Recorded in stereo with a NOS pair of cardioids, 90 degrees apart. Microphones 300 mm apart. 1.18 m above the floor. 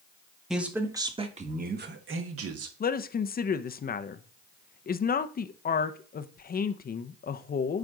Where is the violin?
No violin in this recording.